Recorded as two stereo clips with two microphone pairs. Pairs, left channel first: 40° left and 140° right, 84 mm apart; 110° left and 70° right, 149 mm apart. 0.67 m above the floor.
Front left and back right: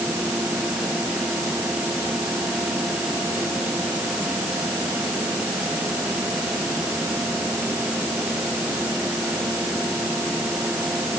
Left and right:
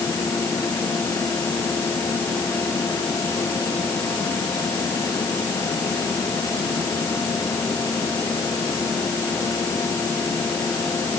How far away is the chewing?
No chewing in this recording.